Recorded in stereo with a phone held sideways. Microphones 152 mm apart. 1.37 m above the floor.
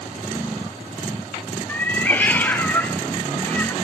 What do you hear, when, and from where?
1.7 s a cat meowing: 10° left (ahead or behind), 0.6 m